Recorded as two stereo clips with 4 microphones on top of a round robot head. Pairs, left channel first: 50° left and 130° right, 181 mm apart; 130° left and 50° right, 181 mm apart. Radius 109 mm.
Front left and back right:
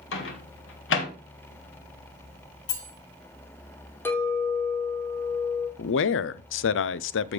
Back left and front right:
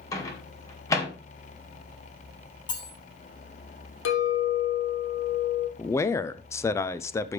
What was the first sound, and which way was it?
A microwave, 55° left.